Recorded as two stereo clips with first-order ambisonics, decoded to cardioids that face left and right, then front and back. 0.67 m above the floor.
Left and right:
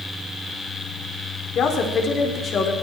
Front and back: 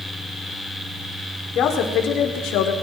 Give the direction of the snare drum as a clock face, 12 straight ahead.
I don't hear a snare drum.